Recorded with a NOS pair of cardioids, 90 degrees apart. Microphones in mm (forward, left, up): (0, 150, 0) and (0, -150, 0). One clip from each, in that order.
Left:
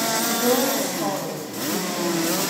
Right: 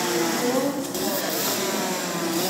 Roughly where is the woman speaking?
Ahead left.